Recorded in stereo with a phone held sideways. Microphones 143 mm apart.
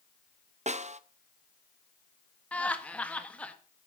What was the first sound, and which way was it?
A snare drum, 50° right (ahead or behind).